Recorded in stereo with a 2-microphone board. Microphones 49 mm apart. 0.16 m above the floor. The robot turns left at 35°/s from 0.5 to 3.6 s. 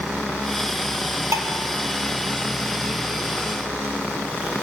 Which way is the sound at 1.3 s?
75° right (ahead or behind).